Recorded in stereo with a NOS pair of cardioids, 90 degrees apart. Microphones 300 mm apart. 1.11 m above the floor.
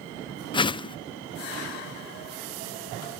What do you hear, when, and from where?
0.5 s a whoosh: 15° left, 0.5 m